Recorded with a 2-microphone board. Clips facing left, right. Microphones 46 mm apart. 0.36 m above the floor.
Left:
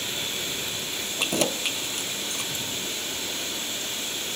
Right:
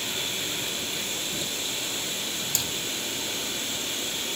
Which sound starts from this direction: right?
Hammering, at 2.5 s.